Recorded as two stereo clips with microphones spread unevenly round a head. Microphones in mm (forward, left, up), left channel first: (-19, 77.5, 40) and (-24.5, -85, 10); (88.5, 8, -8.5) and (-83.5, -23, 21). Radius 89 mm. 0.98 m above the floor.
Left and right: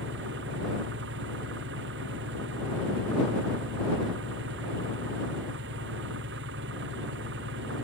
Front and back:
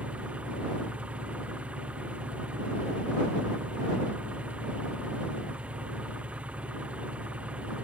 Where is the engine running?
85° right.